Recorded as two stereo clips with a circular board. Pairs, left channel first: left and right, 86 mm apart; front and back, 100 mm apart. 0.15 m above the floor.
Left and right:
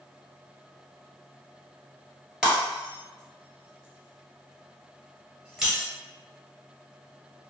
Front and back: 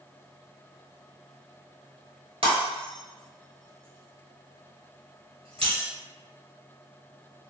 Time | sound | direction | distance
2.4 | breaking glass | 170° right | 1.3 m